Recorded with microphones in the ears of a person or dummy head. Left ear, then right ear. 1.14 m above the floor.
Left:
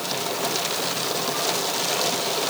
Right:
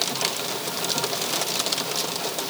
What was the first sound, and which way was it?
Only background noise.